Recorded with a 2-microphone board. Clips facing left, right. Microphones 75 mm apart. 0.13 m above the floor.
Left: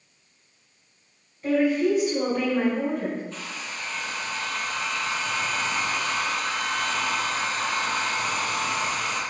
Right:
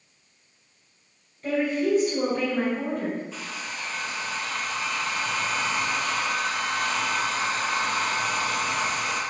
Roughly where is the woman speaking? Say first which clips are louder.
Left 3 dB; centre.